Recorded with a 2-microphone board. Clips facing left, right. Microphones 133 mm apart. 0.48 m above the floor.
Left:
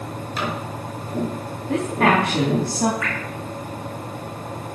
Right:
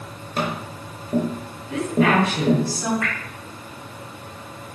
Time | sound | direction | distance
0.4 | tapping | 50° right (ahead or behind) | 6 m
1.7 | a woman speaking | 60° left (ahead or behind) | 4 m
3.0 | dripping | 55° right (ahead or behind) | 5.5 m